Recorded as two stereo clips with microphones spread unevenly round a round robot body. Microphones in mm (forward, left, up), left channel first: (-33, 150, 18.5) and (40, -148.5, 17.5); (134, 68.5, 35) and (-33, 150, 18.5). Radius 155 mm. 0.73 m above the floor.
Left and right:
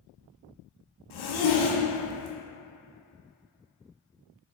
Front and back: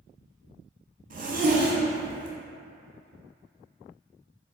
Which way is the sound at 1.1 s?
110° left.